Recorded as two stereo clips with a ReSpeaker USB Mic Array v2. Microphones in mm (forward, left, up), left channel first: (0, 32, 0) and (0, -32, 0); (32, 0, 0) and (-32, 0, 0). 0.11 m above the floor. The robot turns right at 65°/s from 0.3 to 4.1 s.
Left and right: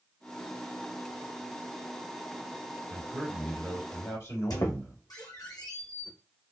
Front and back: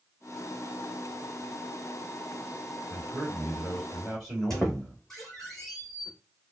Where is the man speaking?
15° left, 2 m; by 5.0 s 95° left, 2 m.